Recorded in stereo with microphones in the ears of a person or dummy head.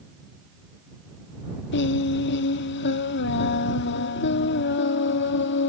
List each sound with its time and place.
1.7 s singing: 70° left (ahead or behind)